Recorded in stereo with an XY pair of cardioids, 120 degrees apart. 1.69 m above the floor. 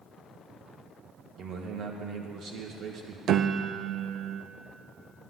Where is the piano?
55° right, 0.6 m.